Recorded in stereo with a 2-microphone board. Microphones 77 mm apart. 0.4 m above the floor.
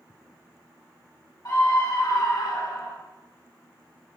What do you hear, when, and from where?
1.4 s a scream: 55° left (ahead or behind), 3 m; by 3.0 s 65° left (ahead or behind), 3 m